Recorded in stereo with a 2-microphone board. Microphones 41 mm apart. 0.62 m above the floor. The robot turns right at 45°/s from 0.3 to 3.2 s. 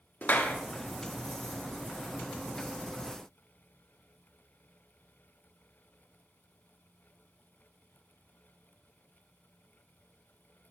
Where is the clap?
50° left (ahead or behind), 1.0 m.